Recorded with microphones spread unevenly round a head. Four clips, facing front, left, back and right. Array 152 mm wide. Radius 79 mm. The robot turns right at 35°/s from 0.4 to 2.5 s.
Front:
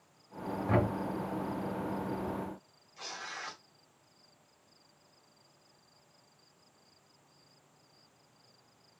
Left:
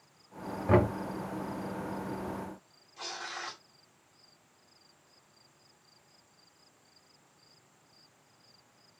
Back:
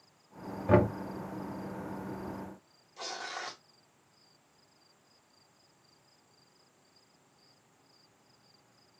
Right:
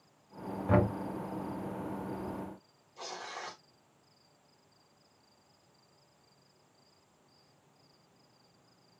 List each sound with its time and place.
0.7 s knocking: 140° left, 1.7 m; by 0.9 s 145° left, 1.7 m
3.0 s tearing paper: 160° right, 1.2 m